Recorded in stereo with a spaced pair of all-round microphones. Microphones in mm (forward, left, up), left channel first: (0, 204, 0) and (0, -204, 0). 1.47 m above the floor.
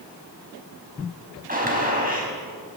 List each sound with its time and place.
1.5 s a gunshot: 20° right (ahead or behind), 5.5 m